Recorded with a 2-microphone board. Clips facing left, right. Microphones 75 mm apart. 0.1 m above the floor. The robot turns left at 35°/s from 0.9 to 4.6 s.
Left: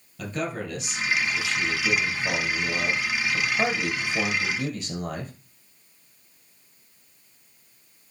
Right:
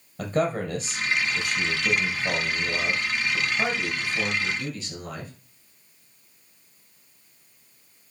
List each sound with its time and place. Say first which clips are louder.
0.2 s a man speaking: right 5 dB; 135° right, 3 m; by 5.3 s 95° left, 3 m